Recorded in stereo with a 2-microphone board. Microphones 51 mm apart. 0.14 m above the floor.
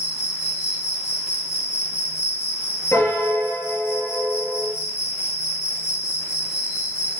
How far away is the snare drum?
I don't hear a snare drum.